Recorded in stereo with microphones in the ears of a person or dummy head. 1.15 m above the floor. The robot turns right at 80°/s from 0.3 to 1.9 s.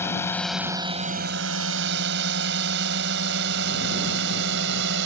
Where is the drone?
15° left (ahead or behind); by 5.0 s 65° right (ahead or behind).